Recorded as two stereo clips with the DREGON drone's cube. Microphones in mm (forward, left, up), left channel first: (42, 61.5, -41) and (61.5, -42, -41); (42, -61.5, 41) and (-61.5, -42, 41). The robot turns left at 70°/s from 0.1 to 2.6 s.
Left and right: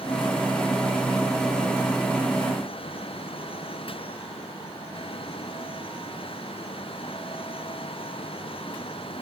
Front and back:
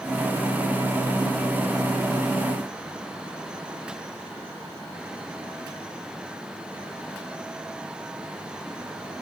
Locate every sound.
Only background noise.